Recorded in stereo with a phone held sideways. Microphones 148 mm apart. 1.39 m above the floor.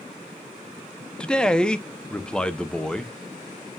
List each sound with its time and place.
1.2 s a man speaking: 5° left (ahead or behind), 0.8 m